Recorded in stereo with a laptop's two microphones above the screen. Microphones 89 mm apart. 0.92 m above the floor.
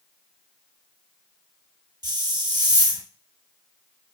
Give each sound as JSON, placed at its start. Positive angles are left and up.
{"t": 2.0, "sound": "a hiss", "side_deg": -50, "distance_m": 0.9}